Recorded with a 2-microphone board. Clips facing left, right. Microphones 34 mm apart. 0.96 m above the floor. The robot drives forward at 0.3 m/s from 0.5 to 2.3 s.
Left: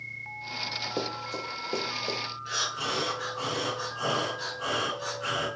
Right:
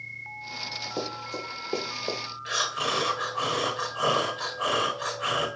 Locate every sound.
1.0 s running footsteps: 15° left (ahead or behind), 1.1 m; by 2.2 s 30° right (ahead or behind), 1.2 m
2.5 s breathing: 55° right (ahead or behind), 0.7 m